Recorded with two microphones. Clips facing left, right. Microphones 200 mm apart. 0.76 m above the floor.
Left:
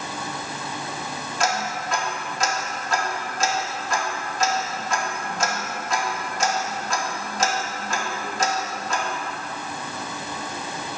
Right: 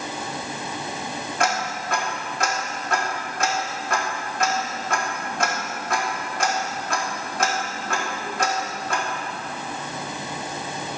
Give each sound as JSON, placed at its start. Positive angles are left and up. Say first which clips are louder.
{"t": 1.4, "sound": "ticking", "louder": "even", "side_deg": -60, "distance_m": 1.4}